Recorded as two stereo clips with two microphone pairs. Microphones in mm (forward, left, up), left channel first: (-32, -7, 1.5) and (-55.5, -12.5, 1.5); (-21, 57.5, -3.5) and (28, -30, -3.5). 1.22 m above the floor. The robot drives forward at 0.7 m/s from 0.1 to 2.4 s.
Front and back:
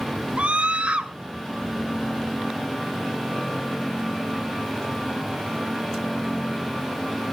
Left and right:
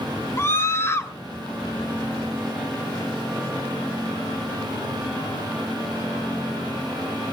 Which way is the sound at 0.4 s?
Straight behind.